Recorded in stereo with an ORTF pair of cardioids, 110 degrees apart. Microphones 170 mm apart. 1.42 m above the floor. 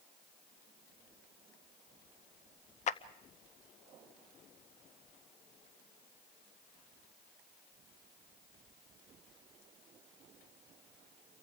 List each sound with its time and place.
2.9 s a clap: 45° left, 1.0 m